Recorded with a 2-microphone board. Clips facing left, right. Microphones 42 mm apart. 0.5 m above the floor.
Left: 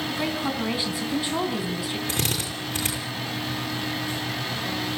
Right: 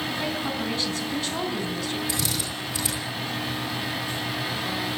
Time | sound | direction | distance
0.1 | a woman speaking | 15° left (ahead or behind) | 4 m
2.1 | a drill | 50° left (ahead or behind) | 9.5 m